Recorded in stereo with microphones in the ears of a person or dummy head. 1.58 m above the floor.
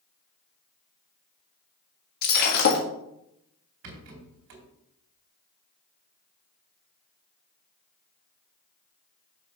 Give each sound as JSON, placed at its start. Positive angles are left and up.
{"t": 2.2, "sound": "breaking glass", "side_deg": 55, "distance_m": 1.5}
{"t": 3.8, "sound": "a rattle", "side_deg": -60, "distance_m": 3.0}